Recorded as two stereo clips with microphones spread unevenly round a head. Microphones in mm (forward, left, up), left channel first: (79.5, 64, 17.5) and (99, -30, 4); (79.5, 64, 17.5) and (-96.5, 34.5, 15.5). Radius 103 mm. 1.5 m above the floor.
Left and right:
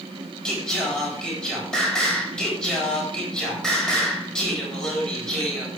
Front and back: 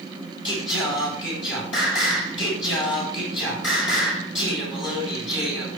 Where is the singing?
20° left, 9.5 m.